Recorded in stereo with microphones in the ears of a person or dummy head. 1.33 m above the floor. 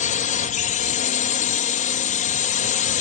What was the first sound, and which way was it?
A drone, 30° left (ahead or behind).